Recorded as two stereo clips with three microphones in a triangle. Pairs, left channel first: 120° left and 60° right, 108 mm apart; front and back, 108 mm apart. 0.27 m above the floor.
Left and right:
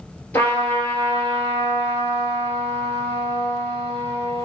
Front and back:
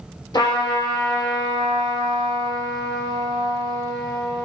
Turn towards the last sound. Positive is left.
turn(degrees=50)